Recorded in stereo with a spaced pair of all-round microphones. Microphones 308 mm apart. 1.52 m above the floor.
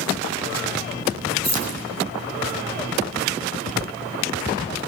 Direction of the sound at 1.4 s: 60° right (ahead or behind).